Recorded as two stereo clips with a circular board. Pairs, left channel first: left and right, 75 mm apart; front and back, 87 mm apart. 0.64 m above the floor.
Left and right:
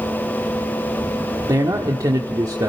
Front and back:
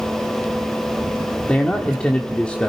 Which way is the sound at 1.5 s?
75° right.